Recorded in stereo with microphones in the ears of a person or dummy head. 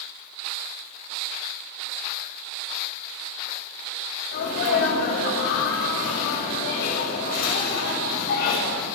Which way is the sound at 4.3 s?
55° left (ahead or behind).